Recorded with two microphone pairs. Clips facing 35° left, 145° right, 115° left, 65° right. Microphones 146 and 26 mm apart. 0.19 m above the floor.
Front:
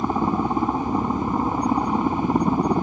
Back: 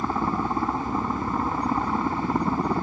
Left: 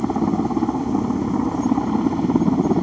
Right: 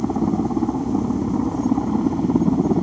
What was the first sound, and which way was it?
A helicopter, 90° left.